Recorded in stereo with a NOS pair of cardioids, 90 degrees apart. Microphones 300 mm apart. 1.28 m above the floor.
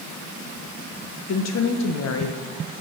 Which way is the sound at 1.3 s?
60° left.